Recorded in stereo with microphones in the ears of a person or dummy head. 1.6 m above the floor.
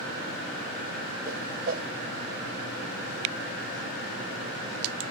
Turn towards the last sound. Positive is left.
turn(degrees=-50)  # may be behind; listen again after turning